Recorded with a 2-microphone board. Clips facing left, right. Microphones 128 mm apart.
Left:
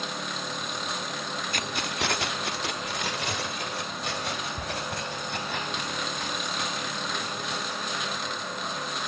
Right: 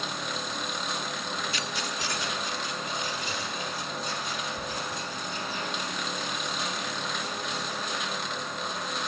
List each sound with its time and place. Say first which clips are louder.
1.5 s keys jangling: left 2 dB; 50° left (ahead or behind), 0.7 m; by 7.9 s 65° left (ahead or behind), 6 m